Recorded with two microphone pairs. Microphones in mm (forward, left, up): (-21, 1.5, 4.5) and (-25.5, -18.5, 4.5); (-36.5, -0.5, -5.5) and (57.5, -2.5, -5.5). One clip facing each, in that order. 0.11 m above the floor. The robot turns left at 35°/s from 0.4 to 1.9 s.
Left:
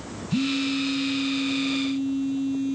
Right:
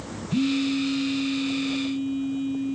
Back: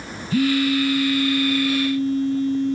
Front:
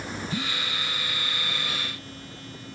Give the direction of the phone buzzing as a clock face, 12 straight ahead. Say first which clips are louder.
Right 1 dB, back 18 dB; 7 o'clock.